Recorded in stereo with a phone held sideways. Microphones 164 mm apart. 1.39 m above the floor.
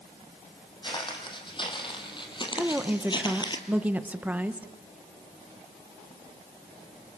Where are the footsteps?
30° left (ahead or behind), 3.5 m.